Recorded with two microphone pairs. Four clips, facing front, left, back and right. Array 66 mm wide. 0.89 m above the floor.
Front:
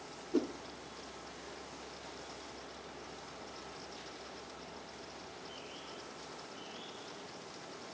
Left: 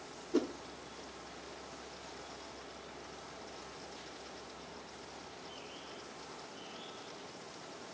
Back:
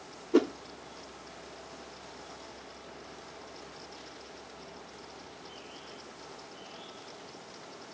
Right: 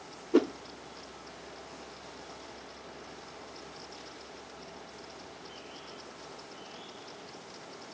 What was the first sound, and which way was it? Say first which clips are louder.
A whoosh: right 8 dB, back 9 dB; 135° right.